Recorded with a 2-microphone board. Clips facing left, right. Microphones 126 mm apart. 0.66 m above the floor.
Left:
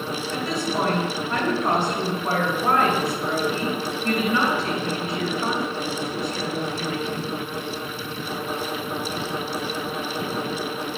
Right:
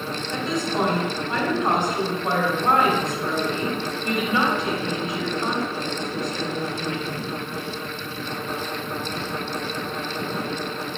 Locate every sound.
0.3 s a woman speaking: 20° right (ahead or behind), 3 m